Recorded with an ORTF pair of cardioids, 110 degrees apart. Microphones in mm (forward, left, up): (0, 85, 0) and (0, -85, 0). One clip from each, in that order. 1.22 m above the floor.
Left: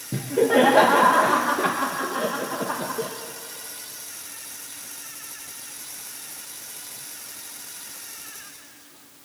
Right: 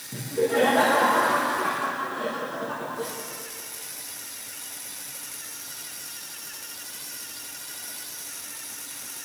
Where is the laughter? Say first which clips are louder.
Left 5 dB; 55° left, 1.4 m.